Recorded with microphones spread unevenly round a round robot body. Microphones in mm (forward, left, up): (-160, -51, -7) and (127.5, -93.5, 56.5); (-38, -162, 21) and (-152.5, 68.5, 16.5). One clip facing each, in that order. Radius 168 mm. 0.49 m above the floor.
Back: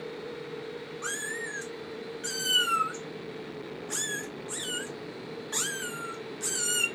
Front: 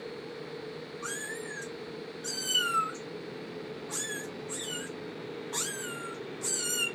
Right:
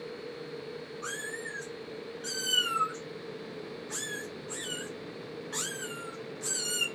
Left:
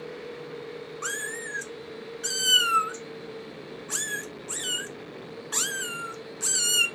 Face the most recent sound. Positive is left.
turn(degrees=105)